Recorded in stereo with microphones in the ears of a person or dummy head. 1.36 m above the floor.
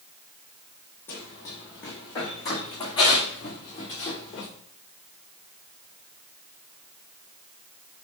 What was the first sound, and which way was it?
Running footsteps, 10° left (ahead or behind).